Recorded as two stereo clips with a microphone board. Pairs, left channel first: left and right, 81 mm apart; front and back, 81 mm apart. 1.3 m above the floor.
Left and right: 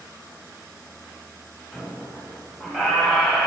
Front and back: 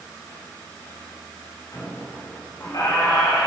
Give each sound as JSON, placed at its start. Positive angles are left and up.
{"t": 1.7, "sound": "a squeak", "azimuth_deg": -10, "distance_m": 1.8}